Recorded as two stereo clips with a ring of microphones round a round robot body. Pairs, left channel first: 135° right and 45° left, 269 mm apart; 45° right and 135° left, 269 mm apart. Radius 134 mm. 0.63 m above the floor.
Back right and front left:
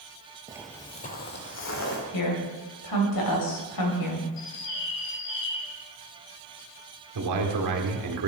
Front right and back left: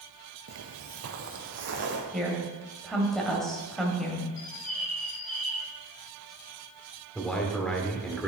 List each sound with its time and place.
0.5 s footsteps: 110° left, 0.8 m; by 2.0 s 175° right, 2.5 m
2.1 s a woman speaking: 135° right, 2.5 m
4.4 s a bird: 110° right, 1.5 m
7.2 s a man speaking: 40° left, 1.6 m